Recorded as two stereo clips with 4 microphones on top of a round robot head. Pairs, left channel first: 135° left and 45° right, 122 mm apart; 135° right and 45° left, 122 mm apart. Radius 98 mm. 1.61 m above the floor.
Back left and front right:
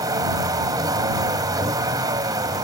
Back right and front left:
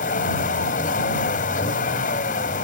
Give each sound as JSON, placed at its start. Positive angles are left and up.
{"t": 0.0, "sound": "a vehicle", "azimuth_deg": -110}